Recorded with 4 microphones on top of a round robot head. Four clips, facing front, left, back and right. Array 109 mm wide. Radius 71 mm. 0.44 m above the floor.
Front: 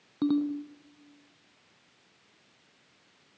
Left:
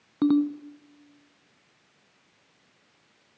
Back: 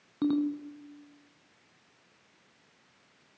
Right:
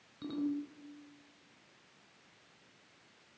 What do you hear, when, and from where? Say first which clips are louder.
0.2 s a ringtone: left 14 dB, front 1 dB; 80° left, 2 m